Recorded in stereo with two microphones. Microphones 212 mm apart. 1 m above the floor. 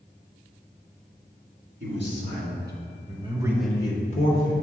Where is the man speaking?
60° right (ahead or behind), 1.7 m; by 4.5 s 55° left (ahead or behind), 0.9 m.